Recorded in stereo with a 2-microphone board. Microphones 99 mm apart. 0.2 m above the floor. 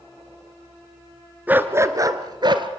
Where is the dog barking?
15° right (ahead or behind), 1.0 m; by 2.7 s 50° right (ahead or behind), 1.4 m.